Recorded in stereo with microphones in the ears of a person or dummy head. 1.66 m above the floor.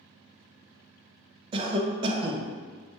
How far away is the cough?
About 0.5 m.